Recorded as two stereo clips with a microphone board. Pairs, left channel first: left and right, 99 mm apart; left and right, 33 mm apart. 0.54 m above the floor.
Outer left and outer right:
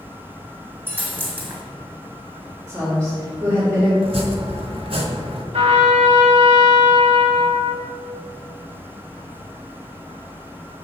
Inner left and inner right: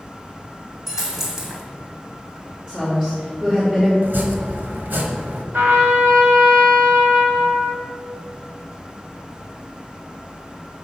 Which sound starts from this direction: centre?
A dropped coin, at 0.9 s.